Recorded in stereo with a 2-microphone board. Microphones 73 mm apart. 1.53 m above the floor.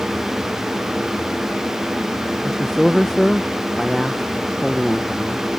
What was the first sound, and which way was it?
A man speaking, 5° left (ahead or behind).